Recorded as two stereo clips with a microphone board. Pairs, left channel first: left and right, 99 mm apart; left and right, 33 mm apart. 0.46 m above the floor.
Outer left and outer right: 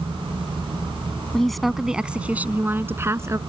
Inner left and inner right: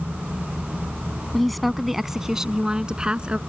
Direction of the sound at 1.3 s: 5° left (ahead or behind).